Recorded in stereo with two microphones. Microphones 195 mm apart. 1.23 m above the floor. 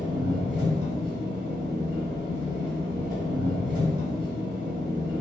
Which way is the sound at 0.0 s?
45° right (ahead or behind).